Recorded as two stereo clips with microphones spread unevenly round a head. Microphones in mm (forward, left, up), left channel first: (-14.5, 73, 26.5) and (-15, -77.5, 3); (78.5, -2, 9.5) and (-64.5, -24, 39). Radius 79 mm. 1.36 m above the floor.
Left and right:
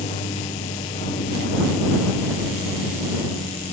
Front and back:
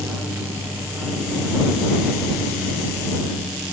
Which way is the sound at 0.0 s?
105° left.